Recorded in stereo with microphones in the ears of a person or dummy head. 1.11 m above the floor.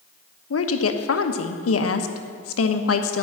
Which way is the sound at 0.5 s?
75° left (ahead or behind).